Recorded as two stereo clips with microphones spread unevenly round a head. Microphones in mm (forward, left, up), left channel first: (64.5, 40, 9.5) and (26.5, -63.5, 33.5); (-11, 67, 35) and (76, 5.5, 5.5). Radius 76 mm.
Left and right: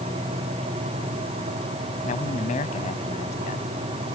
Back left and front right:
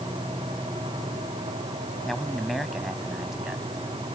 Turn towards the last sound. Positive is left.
turn(degrees=45)